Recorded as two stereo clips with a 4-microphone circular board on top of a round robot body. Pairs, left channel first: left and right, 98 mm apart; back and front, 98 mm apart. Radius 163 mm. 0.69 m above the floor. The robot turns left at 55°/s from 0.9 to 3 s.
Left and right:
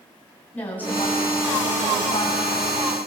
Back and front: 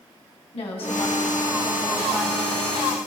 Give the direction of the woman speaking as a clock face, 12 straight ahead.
7 o'clock.